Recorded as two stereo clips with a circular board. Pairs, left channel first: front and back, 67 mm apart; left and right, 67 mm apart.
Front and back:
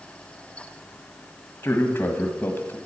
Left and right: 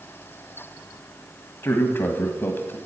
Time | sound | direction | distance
1.6 | a man speaking | 40° left | 1.4 m